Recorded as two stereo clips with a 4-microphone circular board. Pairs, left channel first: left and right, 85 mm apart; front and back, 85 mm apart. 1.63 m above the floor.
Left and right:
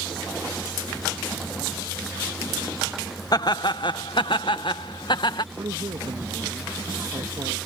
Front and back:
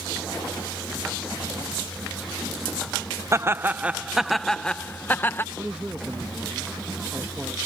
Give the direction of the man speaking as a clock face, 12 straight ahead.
3 o'clock.